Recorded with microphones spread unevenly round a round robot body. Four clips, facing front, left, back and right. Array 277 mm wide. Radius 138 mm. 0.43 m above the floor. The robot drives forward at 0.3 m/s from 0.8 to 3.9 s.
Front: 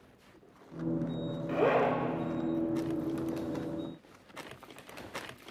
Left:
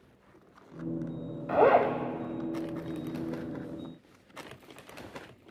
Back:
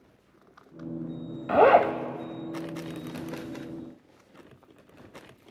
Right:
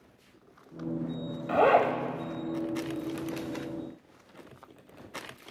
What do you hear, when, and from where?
1.5 s a zipper: 160° right, 0.8 m; by 1.9 s 165° right, 0.9 m